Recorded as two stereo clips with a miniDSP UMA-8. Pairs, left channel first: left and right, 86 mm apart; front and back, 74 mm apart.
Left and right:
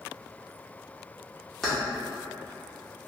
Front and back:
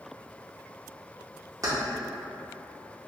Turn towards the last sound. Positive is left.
turn(degrees=175)